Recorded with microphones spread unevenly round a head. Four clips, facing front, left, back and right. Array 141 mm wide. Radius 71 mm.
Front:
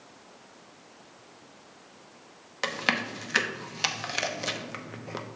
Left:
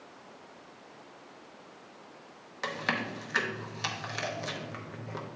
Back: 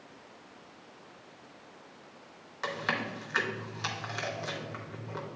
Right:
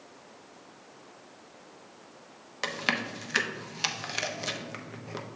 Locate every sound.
2.6 s chewing: 60° right, 0.8 m